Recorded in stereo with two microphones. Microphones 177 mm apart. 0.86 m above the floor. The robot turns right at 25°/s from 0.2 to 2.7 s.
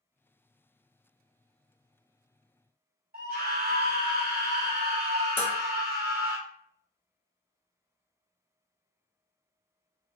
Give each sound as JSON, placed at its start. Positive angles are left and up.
{"t": 3.1, "sound": "a scream", "side_deg": -60, "distance_m": 1.1}
{"t": 5.4, "sound": "dishes clattering", "side_deg": 10, "distance_m": 0.8}